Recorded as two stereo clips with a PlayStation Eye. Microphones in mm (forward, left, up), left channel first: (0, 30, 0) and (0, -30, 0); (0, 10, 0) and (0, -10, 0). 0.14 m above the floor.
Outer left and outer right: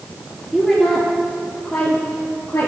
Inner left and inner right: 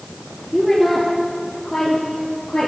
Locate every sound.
0.5 s a woman speaking: centre (ahead or behind), 2.5 m; by 2.7 s 40° left (ahead or behind), 3 m